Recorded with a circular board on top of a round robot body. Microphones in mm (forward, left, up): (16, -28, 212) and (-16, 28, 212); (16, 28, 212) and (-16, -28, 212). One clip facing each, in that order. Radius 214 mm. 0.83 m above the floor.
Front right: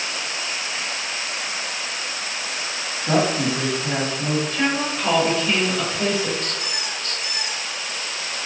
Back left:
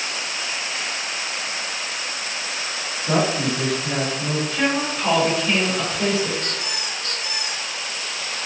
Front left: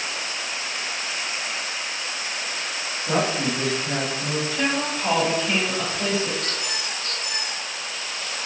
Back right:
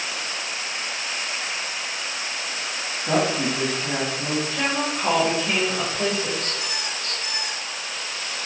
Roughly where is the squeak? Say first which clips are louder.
Even, even; behind.